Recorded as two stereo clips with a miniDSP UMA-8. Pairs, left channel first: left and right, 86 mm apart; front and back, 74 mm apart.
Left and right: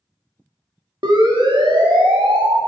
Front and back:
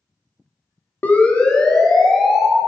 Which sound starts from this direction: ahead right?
A siren, at 1.0 s.